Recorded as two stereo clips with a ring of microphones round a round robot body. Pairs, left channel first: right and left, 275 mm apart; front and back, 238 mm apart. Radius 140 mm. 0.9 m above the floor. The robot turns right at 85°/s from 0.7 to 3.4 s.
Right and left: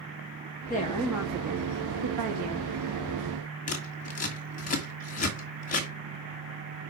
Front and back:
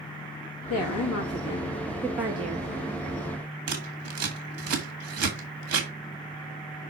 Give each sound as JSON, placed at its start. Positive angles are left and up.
{"t": 0.7, "sound": "a woman speaking", "azimuth_deg": -30, "distance_m": 1.4}
{"t": 3.7, "sound": "scissors", "azimuth_deg": -155, "distance_m": 2.0}